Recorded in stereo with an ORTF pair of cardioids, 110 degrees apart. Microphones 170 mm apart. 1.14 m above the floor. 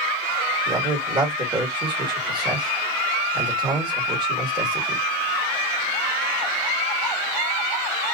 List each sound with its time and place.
0.7 s a man speaking: 25° right, 1.6 m